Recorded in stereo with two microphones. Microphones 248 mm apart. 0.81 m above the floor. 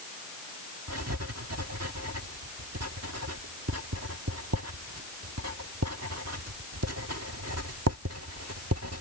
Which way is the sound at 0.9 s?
80° right.